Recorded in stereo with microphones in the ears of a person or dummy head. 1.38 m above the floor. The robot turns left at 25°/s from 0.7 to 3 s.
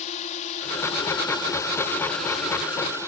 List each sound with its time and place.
0.0 s a drone: 40° left; by 3.1 s 20° right